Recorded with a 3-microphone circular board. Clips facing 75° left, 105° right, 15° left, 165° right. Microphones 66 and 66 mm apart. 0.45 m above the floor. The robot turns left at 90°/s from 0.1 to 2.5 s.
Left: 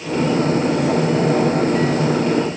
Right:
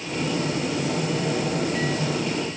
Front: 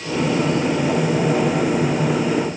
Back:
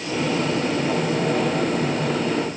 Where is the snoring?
I don't hear snoring.